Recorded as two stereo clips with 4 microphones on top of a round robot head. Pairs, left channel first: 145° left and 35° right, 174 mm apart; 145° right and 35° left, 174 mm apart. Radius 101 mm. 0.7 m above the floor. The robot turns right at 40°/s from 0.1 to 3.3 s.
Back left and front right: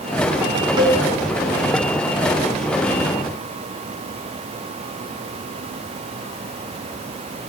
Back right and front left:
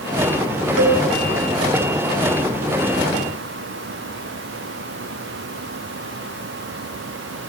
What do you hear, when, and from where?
0.8 s a cowbell: 30° left, 5 m; by 1.0 s 35° left, 5 m